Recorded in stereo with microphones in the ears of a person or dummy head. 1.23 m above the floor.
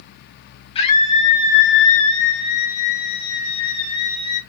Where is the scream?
30° left (ahead or behind), 0.7 m; by 4.4 s 25° left (ahead or behind), 1.6 m.